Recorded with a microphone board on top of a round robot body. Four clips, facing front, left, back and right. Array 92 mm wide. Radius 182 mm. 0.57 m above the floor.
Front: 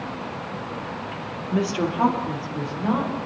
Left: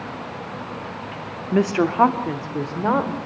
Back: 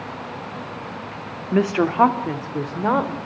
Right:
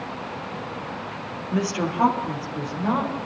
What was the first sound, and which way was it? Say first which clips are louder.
A woman speaking: left 6 dB, back 5 dB; 140° left.